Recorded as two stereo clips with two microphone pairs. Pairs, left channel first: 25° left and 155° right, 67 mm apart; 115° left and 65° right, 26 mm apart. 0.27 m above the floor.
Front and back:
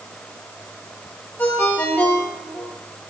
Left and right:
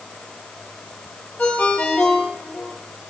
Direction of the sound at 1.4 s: 90° left.